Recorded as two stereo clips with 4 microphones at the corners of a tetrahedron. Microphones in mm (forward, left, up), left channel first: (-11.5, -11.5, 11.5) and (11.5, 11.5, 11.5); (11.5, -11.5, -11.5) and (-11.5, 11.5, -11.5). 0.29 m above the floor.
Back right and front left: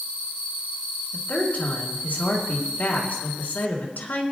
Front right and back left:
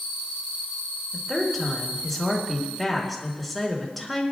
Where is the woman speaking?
135° right, 3.5 m.